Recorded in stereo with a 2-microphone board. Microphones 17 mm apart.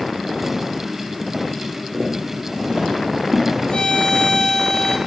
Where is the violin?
60° left (ahead or behind), 0.9 m.